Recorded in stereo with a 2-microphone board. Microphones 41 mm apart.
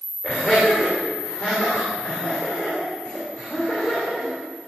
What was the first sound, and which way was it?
Laughter, 35° left (ahead or behind).